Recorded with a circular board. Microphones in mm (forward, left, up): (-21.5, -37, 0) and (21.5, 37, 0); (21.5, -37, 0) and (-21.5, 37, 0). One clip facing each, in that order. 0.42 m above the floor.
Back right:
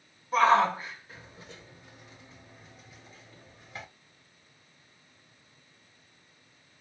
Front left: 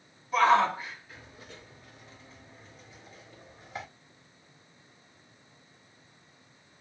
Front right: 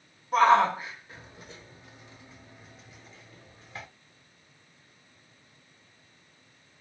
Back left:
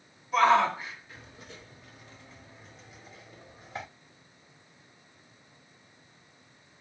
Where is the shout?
75° right, 1.9 m; by 3.9 s 100° left, 1.3 m.